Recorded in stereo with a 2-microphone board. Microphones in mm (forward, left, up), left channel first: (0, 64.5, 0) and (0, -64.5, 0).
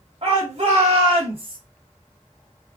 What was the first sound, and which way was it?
A shout, 50° right (ahead or behind).